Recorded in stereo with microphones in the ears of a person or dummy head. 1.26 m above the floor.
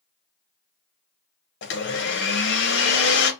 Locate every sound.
1.6 s a blender: 55° left (ahead or behind), 0.7 m